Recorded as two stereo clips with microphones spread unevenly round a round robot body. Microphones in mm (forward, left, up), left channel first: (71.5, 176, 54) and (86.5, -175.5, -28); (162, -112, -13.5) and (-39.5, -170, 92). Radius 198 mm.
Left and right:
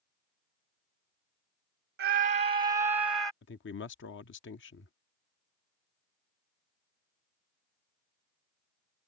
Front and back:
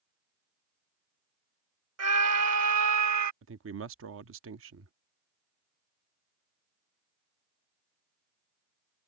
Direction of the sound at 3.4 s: 155° left.